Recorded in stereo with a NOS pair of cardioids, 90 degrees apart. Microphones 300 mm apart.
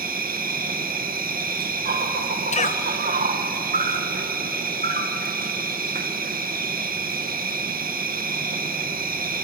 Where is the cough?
25° left, 1.2 m.